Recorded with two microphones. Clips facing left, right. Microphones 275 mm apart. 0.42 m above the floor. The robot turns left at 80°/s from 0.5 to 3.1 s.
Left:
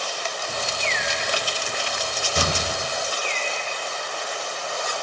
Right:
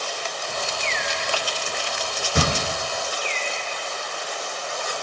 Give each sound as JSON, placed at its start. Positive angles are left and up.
{"t": 2.4, "sound": "a gunshot", "side_deg": -75, "distance_m": 3.5}